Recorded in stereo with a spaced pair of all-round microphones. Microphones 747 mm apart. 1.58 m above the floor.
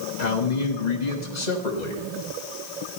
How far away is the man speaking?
About 1.4 m.